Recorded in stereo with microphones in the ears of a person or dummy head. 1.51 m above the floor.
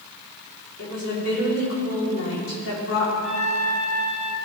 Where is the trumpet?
35° left (ahead or behind), 2 m.